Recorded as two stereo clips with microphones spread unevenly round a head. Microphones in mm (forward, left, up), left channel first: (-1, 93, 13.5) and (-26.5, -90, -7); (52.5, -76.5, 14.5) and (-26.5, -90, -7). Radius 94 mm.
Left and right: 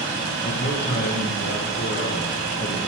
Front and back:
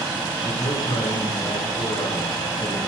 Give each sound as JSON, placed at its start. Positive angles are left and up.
{"t": 0.4, "sound": "a man speaking", "azimuth_deg": 50, "distance_m": 0.9}